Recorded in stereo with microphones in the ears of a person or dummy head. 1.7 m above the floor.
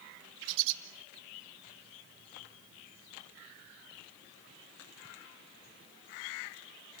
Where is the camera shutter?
No camera shutter in this recording.